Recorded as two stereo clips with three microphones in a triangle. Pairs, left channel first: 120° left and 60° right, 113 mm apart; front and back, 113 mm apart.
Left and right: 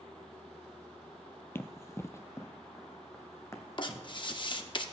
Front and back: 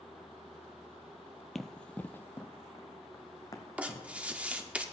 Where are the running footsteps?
85° left, 0.6 m; by 4.7 s 55° left, 2.0 m.